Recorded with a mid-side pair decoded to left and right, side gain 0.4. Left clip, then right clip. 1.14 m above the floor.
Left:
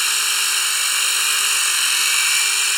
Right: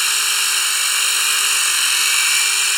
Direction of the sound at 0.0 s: 10° right.